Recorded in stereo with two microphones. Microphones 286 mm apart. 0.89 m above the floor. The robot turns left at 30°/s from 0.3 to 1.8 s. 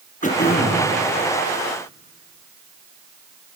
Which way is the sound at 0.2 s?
30° left (ahead or behind).